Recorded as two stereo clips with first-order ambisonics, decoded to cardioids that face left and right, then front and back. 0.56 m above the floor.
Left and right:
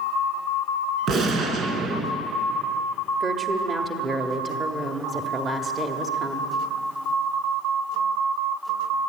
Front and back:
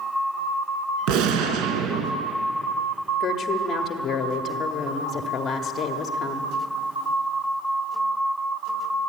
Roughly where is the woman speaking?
Ahead right.